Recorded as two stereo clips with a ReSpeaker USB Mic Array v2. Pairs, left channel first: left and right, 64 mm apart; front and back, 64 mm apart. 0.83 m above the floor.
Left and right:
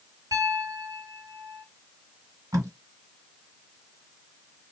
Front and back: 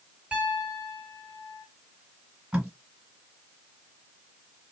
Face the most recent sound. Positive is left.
turn(degrees=-105)